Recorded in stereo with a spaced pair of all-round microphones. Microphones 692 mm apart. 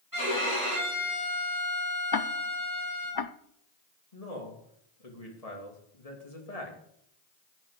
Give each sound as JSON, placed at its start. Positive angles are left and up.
{"t": 0.1, "sound": "a violin", "side_deg": -25, "distance_m": 5.0}
{"t": 2.1, "sound": "ticking", "side_deg": 35, "distance_m": 0.6}
{"t": 4.1, "sound": "a man speaking", "side_deg": 60, "distance_m": 3.0}